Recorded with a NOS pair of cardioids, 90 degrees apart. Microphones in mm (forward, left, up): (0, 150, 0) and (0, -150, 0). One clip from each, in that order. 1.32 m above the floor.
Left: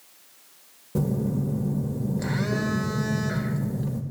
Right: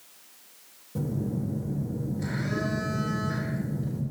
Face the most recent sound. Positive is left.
turn(degrees=55)